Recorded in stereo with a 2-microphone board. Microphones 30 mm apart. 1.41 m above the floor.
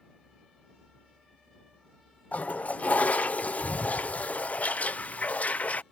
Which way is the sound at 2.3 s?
55° left (ahead or behind).